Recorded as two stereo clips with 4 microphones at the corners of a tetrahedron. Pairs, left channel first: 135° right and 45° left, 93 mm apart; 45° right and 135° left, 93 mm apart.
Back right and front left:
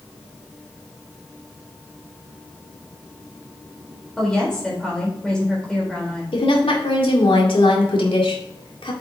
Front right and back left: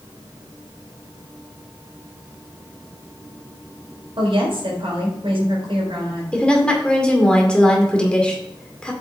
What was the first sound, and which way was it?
A woman speaking, 145° left.